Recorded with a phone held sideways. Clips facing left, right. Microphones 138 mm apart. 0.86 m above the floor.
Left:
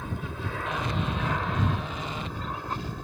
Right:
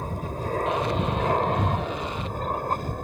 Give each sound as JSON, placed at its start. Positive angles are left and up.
{"t": 0.0, "sound": "an aircraft", "side_deg": -40}